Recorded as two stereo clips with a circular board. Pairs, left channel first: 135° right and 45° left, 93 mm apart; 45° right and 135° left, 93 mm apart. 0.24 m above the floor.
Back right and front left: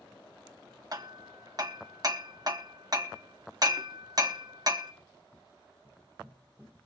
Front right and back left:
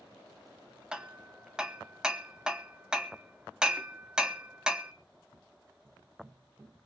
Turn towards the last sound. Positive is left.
turn(degrees=60)